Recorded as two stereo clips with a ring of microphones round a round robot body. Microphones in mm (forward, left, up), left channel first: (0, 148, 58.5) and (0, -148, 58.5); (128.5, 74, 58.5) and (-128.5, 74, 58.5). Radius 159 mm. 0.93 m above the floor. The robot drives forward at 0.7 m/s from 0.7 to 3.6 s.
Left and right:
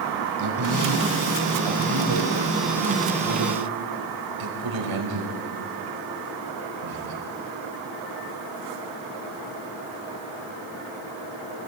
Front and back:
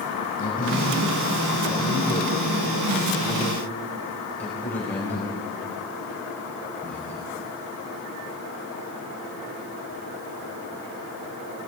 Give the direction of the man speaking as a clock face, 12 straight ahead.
2 o'clock.